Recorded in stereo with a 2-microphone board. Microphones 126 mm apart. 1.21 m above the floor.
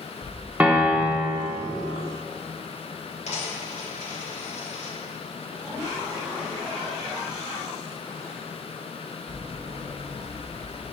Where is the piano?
10° right (ahead or behind), 1.2 m.